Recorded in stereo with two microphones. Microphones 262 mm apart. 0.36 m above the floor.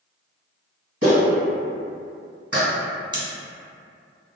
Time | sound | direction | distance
1.0 | a clap | 60° right (ahead or behind) | 1.7 m
3.1 | scissors | 20° right (ahead or behind) | 0.6 m